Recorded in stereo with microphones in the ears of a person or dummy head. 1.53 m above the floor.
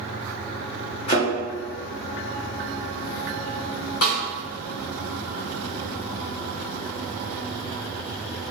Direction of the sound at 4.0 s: 70° left (ahead or behind).